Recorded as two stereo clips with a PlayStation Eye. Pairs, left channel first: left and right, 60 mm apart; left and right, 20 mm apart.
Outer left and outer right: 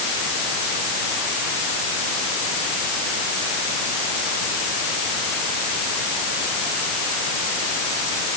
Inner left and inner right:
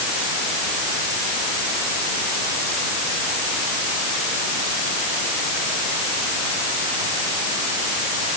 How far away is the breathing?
I don't hear breathing.